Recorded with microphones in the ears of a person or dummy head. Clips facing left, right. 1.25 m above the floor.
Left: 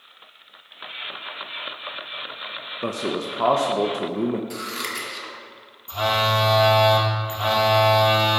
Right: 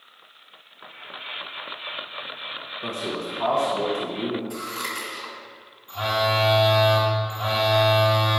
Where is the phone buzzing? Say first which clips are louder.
Left 1 dB; 55° left (ahead or behind), 1.3 m.